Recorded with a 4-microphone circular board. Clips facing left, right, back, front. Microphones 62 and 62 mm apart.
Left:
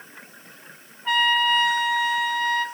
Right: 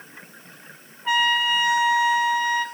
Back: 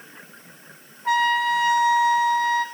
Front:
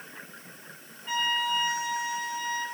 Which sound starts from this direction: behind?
A trumpet, at 1.1 s.